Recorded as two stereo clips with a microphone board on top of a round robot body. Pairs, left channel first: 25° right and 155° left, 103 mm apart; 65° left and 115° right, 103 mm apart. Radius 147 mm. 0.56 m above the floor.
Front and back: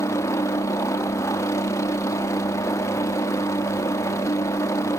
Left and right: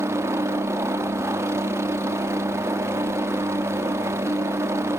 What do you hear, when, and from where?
0.0 s a helicopter: 65° right